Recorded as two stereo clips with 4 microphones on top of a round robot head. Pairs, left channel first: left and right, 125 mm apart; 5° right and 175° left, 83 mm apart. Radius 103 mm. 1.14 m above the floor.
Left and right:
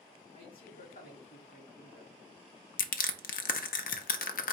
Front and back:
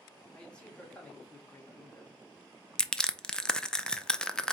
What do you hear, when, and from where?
0.3 s a man speaking: 80° left, 2 m; by 2.2 s 60° left, 1.3 m
2.8 s crushing: 80° left, 0.6 m